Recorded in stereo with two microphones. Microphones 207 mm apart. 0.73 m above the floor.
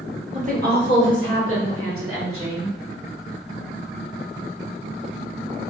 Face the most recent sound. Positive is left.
turn(degrees=-80)